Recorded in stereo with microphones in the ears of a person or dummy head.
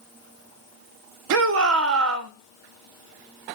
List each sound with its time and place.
1.3 s a shout: 80° right, 1.2 m